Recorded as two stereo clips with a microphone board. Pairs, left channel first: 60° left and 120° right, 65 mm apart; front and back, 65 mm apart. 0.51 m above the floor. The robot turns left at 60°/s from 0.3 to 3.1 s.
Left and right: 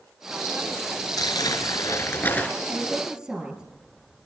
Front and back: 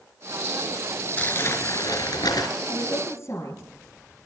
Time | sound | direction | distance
1.2 | crumpling | 70° left | 4 m
2.7 | a woman speaking | 15° right | 6 m